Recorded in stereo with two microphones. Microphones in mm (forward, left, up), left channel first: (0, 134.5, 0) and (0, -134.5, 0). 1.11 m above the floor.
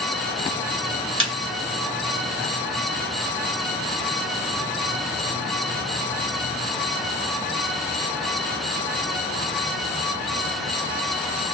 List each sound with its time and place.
1.2 s a snare drum: 50° right (ahead or behind), 1.5 m